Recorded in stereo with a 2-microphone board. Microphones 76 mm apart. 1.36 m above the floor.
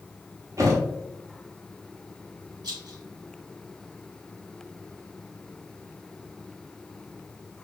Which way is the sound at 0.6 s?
40° right (ahead or behind).